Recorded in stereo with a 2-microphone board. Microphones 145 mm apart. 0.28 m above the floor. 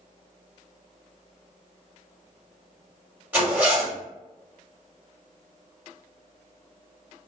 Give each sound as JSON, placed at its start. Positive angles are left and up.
{"t": 3.3, "sound": "a zipper", "side_deg": -15, "distance_m": 1.6}